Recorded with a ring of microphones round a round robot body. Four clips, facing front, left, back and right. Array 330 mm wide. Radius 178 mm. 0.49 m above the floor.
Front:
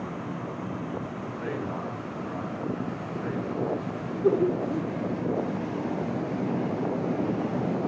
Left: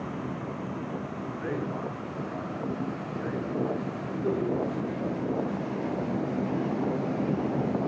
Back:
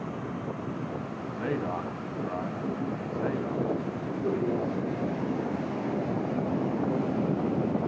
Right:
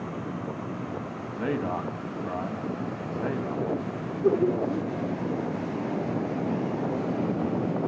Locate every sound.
1.3 s a man speaking: 115° right, 3.5 m
4.2 s laughter: 40° right, 1.9 m